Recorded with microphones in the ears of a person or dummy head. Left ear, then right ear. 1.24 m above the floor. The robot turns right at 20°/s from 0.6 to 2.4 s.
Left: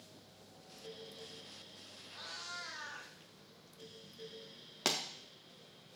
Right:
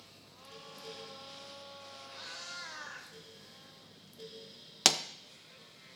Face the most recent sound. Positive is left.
turn(degrees=-35)  # may be behind; listen again after turning